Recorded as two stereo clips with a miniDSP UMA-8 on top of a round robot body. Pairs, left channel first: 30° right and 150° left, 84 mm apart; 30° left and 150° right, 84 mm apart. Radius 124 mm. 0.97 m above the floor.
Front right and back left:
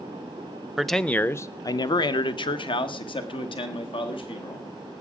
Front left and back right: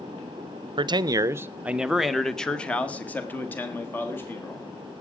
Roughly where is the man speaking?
Behind right.